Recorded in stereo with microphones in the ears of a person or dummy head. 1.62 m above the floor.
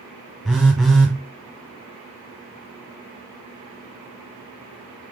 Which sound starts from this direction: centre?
A phone buzzing, at 0.5 s.